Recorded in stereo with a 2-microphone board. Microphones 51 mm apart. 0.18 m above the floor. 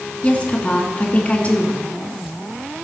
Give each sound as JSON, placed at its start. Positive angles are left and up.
{"t": 0.2, "sound": "a woman speaking", "side_deg": 30, "distance_m": 2.0}